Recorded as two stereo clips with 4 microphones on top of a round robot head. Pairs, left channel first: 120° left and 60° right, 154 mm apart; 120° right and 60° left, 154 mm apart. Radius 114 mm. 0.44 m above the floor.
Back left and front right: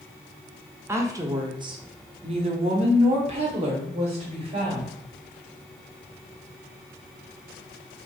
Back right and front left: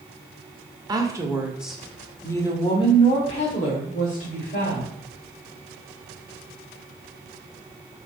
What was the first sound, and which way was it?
A woman speaking, 5° left.